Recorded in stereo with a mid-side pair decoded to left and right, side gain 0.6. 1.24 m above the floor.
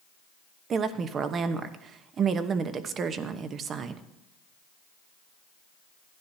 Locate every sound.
0.7 s a woman speaking: 40° right, 1.0 m